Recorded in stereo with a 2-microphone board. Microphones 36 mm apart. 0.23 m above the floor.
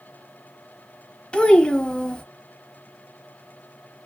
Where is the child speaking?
30° left (ahead or behind), 0.6 m.